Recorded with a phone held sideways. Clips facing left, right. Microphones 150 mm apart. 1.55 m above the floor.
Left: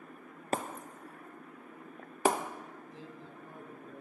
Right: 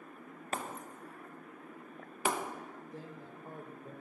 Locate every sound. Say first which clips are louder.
0.5 s breaking glass: left 5 dB; 40° left (ahead or behind), 0.9 m
2.9 s a man speaking: right 1 dB; 55° right (ahead or behind), 1.5 m